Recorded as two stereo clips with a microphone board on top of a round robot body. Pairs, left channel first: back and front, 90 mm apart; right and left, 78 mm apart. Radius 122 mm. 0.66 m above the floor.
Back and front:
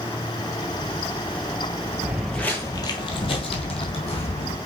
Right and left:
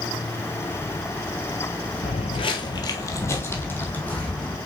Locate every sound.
2.0 s footsteps: 75° right, 1.0 m; by 4.6 s 165° right, 2.5 m